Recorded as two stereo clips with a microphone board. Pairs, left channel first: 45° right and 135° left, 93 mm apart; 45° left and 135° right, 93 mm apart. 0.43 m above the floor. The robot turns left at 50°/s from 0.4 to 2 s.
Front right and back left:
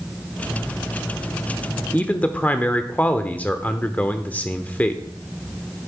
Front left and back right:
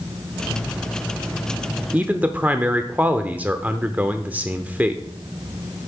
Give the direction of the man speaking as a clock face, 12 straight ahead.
3 o'clock.